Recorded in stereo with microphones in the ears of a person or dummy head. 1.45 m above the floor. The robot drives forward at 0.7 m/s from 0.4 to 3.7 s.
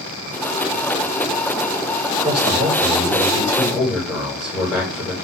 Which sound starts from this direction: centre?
A man speaking, at 2.2 s.